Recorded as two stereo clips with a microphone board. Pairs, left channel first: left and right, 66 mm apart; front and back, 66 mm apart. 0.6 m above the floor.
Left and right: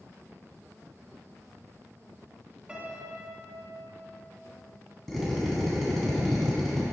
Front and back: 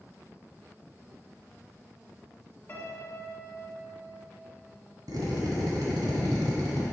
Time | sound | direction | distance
2.7 | a piano | 30° right | 1.6 m
5.1 | a drill | 175° left | 1.7 m